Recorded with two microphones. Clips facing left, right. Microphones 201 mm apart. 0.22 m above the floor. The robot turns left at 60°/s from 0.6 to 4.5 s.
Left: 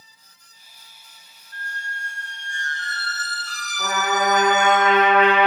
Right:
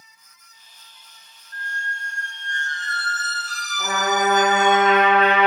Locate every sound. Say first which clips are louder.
1.5 s a squeak: right 2 dB; 130° right, 1.4 m; by 4.8 s 50° left, 1.4 m
3.8 s a trumpet: right 1 dB; 35° right, 2.0 m; by 5.5 s 80° right, 2.0 m